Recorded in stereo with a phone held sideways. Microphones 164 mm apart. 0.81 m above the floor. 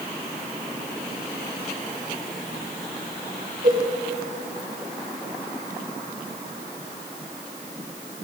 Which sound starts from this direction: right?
A cowbell, at 3.6 s.